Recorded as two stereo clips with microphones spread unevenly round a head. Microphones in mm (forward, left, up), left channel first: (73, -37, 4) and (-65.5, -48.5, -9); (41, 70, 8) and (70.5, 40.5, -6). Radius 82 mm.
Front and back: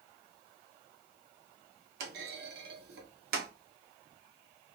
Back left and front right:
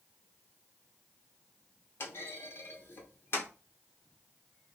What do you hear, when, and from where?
2.0 s a clunk: 155° left, 0.6 m